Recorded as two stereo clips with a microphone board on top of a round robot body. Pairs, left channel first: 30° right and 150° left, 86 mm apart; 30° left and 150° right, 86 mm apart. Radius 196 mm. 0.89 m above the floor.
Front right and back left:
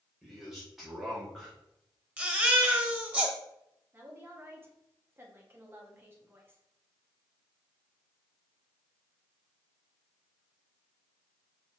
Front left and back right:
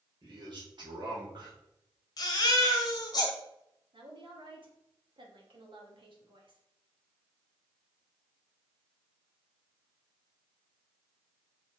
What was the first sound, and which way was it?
A man speaking, 125° right.